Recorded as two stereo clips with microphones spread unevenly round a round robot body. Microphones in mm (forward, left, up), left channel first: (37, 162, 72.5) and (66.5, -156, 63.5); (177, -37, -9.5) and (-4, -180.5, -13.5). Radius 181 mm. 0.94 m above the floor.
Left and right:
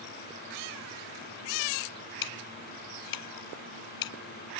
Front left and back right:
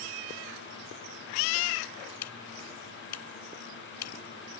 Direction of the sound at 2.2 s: 75° left.